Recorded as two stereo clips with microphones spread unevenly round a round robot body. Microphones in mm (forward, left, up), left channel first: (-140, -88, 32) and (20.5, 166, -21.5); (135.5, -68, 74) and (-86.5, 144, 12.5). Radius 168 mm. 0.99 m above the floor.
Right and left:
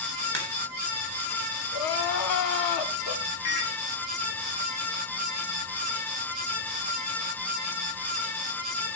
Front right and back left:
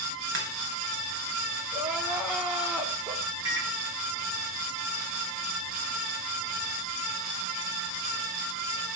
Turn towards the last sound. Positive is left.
turn(degrees=-145)